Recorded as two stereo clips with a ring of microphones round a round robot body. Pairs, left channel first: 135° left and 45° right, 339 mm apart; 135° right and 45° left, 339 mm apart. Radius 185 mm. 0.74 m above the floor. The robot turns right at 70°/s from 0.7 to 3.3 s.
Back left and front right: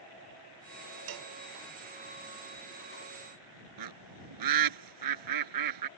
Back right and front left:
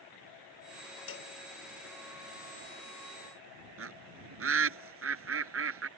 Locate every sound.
1.1 s a cowbell: 80° right; by 1.3 s 60° right
3.8 s a bird: 10° right